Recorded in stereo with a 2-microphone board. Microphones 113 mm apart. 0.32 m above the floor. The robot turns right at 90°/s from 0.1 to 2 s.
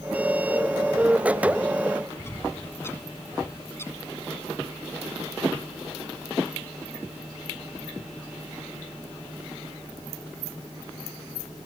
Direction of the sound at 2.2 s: 20° left (ahead or behind).